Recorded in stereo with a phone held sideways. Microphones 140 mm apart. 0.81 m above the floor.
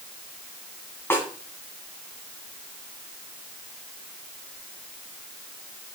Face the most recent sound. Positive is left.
turn(degrees=15)  # may be behind; listen again after turning